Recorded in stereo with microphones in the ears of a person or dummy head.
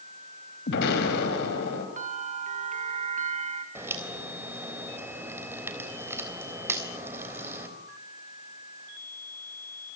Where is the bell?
40° right (ahead or behind), 1.9 m.